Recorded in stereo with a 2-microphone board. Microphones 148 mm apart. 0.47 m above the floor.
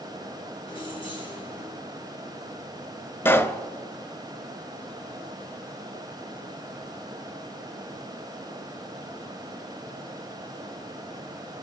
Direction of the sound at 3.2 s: 15° left (ahead or behind).